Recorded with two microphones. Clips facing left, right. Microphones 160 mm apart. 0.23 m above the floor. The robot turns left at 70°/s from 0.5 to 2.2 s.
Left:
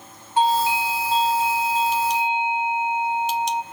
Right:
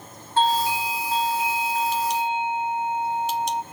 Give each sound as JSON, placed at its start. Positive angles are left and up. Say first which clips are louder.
{"t": 0.4, "sound": "a doorbell", "louder": "left 2 dB", "azimuth_deg": 155, "distance_m": 1.8}